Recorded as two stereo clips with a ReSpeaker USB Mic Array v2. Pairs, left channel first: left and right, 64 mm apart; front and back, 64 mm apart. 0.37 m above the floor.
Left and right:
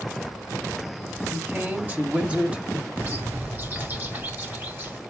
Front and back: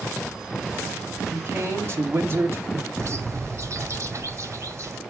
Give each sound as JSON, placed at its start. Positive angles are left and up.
{"t": 1.3, "sound": "a man speaking", "azimuth_deg": -145, "distance_m": 2.5}
{"t": 3.0, "sound": "a bird", "azimuth_deg": -145, "distance_m": 2.0}